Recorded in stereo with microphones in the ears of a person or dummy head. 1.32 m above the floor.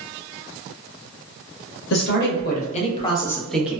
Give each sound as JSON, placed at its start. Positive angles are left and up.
{"t": 1.9, "sound": "a man speaking", "side_deg": 65, "distance_m": 1.1}